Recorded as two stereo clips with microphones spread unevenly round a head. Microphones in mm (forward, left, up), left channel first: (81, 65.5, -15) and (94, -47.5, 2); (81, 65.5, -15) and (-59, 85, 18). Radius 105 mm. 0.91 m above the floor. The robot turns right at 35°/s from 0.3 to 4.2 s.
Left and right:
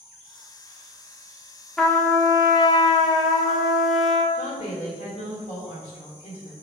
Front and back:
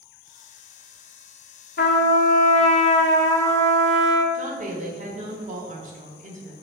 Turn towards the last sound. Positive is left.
turn(degrees=140)